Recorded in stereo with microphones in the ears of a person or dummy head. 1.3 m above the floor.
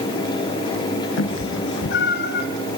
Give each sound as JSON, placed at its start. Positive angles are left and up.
{"t": 1.2, "sound": "a cat meowing", "side_deg": 75, "distance_m": 3.0}